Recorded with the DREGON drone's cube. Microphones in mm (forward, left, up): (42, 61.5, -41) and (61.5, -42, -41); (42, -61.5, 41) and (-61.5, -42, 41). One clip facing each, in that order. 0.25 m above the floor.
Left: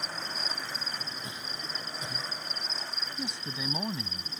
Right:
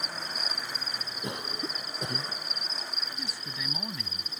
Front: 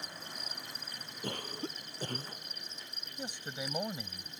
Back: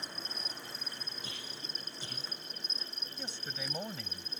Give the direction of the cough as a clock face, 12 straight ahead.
2 o'clock.